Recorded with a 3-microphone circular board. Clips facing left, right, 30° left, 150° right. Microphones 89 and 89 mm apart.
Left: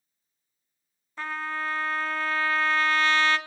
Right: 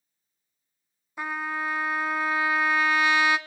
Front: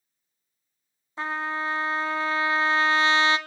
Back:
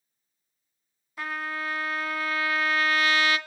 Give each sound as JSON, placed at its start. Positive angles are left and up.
{"t": 1.2, "sound": "a trumpet", "azimuth_deg": -20, "distance_m": 0.5}